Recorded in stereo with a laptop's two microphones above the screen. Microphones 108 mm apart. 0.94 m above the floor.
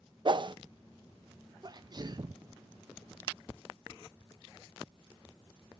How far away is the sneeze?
About 0.7 m.